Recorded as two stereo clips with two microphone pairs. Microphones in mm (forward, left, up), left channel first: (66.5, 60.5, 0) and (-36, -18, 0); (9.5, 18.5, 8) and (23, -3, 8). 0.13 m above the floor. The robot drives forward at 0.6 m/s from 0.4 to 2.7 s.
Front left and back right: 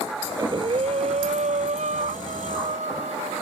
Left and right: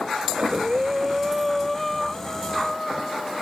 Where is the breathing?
85° right; by 3.4 s 160° right.